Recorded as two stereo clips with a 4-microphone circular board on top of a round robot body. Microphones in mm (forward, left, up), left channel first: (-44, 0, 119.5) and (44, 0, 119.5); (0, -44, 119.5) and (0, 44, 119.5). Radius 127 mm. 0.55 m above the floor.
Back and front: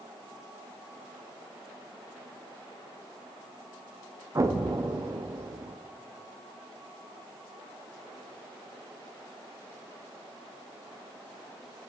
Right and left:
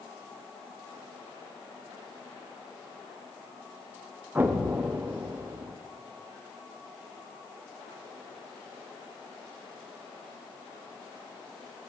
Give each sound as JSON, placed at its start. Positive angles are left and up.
{"t": 4.3, "sound": "an explosion", "azimuth_deg": 30, "distance_m": 0.7}